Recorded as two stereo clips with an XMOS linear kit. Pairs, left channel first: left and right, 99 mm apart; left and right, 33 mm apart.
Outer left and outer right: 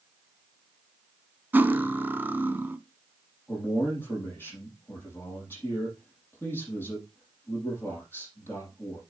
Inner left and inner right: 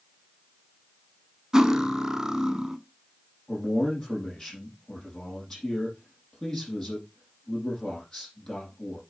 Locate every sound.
1.5 s cutlery clinking: 20° right (ahead or behind), 0.7 m
3.5 s a man speaking: 20° left (ahead or behind), 6 m